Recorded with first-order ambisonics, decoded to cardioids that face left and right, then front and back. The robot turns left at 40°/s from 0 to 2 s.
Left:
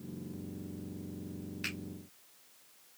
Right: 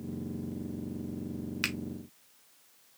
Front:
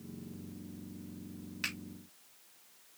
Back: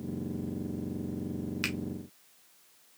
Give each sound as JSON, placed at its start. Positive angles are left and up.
{"t": 1.6, "sound": "a finger snap", "azimuth_deg": -105, "distance_m": 1.5}